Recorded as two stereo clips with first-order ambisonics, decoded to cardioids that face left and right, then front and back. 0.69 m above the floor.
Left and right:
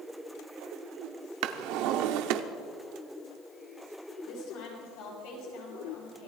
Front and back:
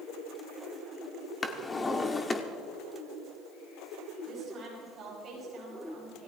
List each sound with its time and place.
1.4 s a drawer: 75° right, 0.9 m
4.3 s a woman speaking: 120° left, 6.5 m